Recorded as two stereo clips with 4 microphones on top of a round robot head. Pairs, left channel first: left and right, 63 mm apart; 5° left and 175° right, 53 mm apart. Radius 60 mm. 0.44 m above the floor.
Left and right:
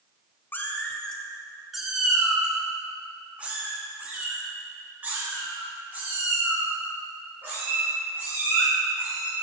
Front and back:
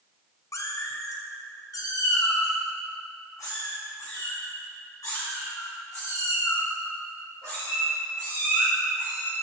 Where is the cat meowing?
30° left, 0.8 m; by 9.3 s 35° right, 5.5 m.